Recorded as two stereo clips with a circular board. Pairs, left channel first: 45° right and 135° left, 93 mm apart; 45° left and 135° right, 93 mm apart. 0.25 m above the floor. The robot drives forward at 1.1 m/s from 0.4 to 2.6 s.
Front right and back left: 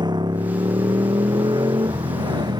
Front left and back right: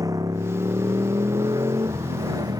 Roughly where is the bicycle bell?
No bicycle bell in this recording.